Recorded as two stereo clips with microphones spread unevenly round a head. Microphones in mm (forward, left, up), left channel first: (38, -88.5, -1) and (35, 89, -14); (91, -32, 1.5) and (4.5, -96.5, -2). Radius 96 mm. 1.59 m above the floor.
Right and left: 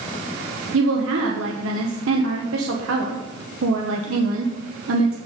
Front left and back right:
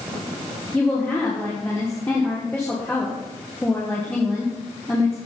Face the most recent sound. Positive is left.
turn(degrees=115)